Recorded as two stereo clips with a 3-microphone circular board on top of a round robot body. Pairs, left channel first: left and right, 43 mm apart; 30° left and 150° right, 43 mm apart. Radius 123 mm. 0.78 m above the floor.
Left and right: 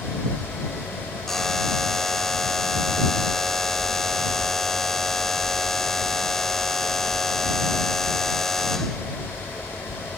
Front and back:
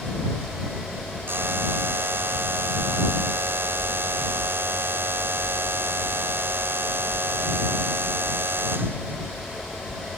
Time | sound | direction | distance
1.3 | a buzzer | 170° left | ?